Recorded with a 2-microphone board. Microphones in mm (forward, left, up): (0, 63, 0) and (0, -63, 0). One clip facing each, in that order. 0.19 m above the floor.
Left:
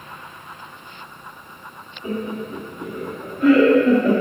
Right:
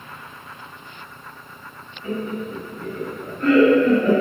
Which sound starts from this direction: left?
Laughter, at 2.0 s.